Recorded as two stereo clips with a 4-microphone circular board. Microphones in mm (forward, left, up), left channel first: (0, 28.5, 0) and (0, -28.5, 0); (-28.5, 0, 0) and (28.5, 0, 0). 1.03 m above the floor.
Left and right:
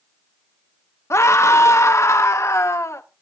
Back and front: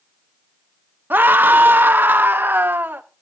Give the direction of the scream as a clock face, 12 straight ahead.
10 o'clock.